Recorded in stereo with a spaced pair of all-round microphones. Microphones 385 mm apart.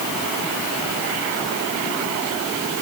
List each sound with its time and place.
Only background noise.